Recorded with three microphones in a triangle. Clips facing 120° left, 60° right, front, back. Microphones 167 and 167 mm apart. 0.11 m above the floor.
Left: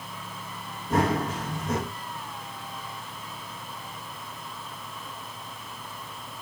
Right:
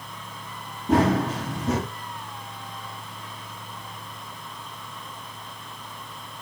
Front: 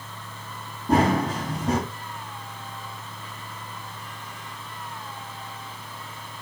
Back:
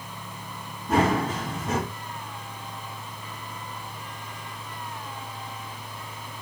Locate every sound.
0.9 s running footsteps: 55° right, 6.5 m